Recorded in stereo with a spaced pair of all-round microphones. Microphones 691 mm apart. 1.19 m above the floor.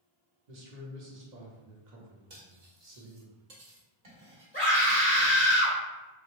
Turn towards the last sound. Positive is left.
turn(degrees=10)  # may be behind; listen again after turning